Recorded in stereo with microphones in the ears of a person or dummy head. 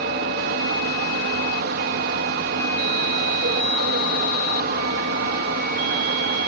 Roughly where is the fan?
Right.